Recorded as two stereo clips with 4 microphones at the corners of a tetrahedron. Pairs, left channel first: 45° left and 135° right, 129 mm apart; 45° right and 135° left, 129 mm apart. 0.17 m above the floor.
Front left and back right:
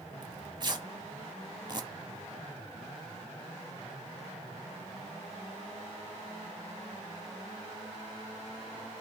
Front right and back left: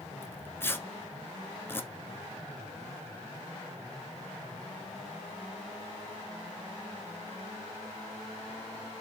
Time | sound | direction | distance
0.2 | tearing paper | 105° right | 0.8 m